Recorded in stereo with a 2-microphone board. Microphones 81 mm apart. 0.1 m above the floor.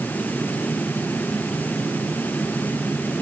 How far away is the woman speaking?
No woman speaking in this recording.